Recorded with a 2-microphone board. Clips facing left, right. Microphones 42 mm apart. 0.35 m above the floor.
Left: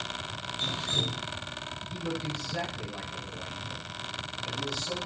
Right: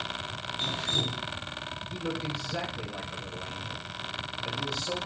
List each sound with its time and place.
0.6 s dripping: 40° right (ahead or behind), 4 m
1.9 s a man speaking: 25° right (ahead or behind), 7 m